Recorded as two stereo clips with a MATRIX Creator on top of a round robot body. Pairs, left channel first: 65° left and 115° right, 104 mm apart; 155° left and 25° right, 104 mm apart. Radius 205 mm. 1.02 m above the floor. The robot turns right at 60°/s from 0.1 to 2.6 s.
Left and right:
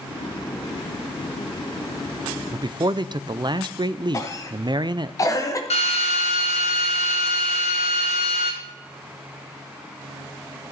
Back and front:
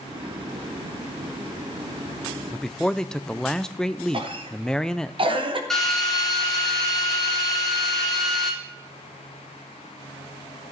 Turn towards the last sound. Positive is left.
turn(degrees=70)